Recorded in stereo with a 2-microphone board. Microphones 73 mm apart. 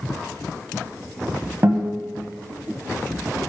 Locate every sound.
1.6 s a guitar: 30° right (ahead or behind), 1.4 m